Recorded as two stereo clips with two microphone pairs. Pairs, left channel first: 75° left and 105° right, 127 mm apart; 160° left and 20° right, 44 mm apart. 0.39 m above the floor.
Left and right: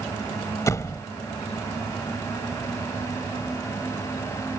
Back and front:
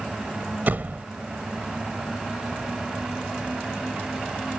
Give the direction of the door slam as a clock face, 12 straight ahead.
11 o'clock.